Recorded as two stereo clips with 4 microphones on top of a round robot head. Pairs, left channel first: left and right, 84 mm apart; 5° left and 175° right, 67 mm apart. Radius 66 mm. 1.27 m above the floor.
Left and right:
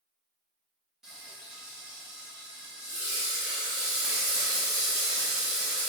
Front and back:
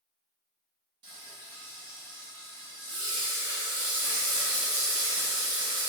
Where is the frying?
175° right, 1.5 m.